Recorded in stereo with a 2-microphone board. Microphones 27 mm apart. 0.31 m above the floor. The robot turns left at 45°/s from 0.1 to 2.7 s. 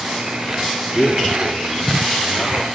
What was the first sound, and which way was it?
A man speaking, 25° left (ahead or behind).